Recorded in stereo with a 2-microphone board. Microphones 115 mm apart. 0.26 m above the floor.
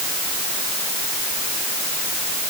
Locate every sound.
Only background noise.